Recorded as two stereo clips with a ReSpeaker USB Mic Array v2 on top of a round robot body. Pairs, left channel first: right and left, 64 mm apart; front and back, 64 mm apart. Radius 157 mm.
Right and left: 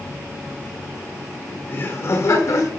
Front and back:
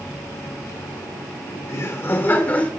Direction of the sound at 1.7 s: 40° right.